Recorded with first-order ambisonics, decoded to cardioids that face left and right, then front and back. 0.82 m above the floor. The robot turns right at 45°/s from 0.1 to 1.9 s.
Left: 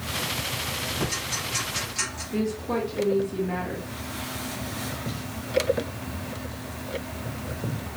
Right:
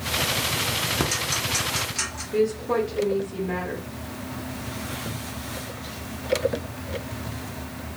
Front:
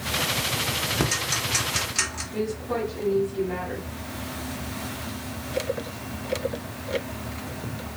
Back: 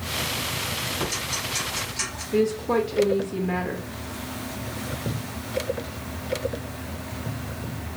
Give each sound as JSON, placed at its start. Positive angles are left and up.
{"t": 1.0, "sound": "ticking", "azimuth_deg": -50, "distance_m": 1.0}
{"t": 2.3, "sound": "a woman speaking", "azimuth_deg": 180, "distance_m": 0.8}